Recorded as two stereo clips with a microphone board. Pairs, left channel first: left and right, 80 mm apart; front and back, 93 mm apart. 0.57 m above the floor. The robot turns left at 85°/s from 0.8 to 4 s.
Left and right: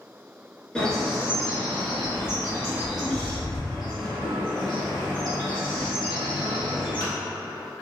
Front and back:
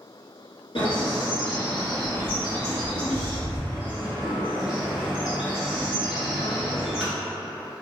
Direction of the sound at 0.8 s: 10° left.